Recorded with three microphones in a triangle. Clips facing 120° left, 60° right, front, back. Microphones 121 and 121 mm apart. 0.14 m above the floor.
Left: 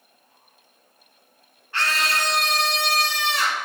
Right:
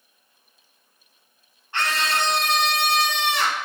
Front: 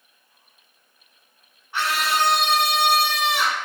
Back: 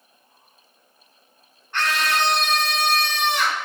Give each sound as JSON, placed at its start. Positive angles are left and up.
{"t": 1.7, "sound": "a scream", "azimuth_deg": -75, "distance_m": 1.4}